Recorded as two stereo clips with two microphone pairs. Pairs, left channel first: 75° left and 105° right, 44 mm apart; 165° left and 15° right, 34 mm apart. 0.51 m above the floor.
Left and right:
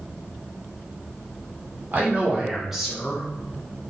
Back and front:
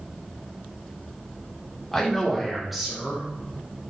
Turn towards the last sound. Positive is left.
turn(degrees=40)